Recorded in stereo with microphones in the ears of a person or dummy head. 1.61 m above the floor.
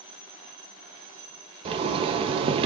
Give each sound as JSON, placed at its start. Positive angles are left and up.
{"t": 1.6, "sound": "a zipper", "side_deg": -35, "distance_m": 0.7}